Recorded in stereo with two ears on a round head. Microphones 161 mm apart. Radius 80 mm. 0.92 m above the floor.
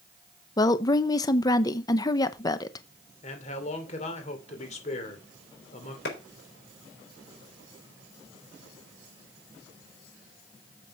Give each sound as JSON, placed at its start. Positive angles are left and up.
{"t": 0.6, "sound": "a woman speaking", "side_deg": 20, "distance_m": 0.7}
{"t": 3.2, "sound": "a man speaking", "side_deg": 40, "distance_m": 2.5}
{"t": 6.0, "sound": "a clap", "side_deg": 65, "distance_m": 4.0}